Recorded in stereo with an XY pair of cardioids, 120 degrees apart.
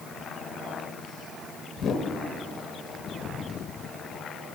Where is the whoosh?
45° left, 0.6 m.